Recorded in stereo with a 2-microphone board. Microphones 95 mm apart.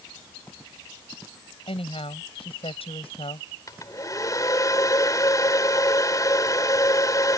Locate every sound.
1.7 s a woman speaking: 85° left
3.7 s a hair dryer: 40° left (ahead or behind)